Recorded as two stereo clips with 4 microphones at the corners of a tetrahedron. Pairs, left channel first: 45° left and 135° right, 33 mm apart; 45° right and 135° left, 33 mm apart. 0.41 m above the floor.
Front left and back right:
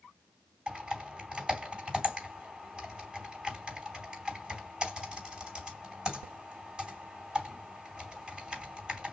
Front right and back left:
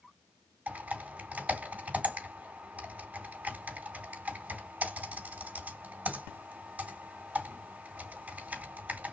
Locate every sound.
0.7 s typing on a keyboard: 160° left, 3.5 m